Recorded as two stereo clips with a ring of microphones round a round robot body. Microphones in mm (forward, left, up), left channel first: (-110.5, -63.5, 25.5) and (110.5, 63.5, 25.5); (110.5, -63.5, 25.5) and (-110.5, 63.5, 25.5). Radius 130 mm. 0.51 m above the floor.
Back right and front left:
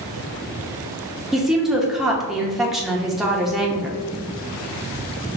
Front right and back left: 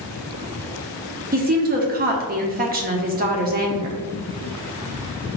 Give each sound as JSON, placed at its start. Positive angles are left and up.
{"t": 1.3, "sound": "a woman speaking", "azimuth_deg": 120, "distance_m": 0.8}